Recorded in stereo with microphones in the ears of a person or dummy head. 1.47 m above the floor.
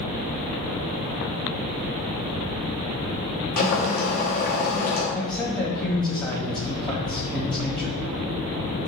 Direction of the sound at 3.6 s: 45° left (ahead or behind).